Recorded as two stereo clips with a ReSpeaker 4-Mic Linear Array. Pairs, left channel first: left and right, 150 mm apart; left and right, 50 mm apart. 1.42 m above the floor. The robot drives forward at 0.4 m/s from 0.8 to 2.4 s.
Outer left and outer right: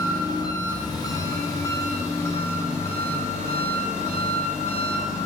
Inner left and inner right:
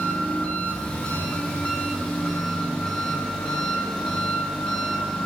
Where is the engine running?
30° left (ahead or behind), 1.1 m; by 5.2 s 20° left (ahead or behind), 1.5 m.